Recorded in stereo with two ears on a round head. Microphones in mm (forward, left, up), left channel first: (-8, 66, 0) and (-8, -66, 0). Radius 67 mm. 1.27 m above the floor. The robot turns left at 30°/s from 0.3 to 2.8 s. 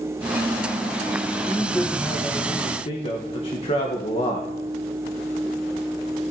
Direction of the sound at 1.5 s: Straight behind.